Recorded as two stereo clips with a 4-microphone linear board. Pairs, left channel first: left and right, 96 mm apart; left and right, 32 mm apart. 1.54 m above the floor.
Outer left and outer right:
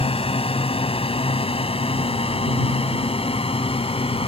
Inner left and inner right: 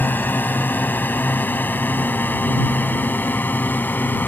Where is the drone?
80° left; by 4.3 s 75° left (ahead or behind).